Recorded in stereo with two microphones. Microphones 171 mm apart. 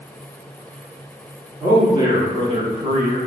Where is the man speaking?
20° right (ahead or behind), 1.4 m; by 3.2 s 45° right (ahead or behind), 1.8 m.